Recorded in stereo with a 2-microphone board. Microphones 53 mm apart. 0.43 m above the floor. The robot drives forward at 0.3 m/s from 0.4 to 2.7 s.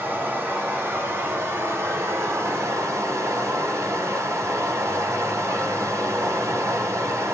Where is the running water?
40° right (ahead or behind), 1.4 m; by 7.3 s 70° right (ahead or behind), 1.0 m.